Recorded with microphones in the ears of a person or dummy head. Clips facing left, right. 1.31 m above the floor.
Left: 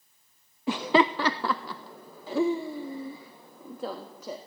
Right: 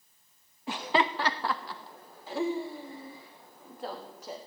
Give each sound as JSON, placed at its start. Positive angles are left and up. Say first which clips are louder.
{"t": 0.7, "sound": "laughter", "louder": "left 6 dB", "side_deg": 60, "distance_m": 0.6}